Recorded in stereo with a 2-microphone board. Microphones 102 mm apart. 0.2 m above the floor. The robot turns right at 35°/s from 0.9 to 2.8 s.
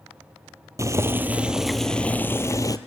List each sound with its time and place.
0.8 s boiling: 30° right, 1.1 m; by 2.8 s 35° left, 1.1 m